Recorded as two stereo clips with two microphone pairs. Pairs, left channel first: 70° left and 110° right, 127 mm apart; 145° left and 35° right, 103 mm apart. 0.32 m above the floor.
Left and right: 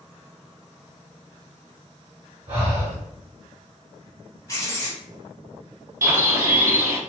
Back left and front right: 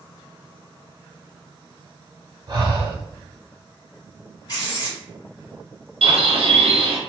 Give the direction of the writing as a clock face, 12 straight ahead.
8 o'clock.